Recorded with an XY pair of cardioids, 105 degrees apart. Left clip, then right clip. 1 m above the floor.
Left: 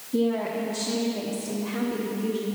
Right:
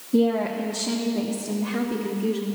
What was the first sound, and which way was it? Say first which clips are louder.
A woman speaking: right 3 dB; 40° right.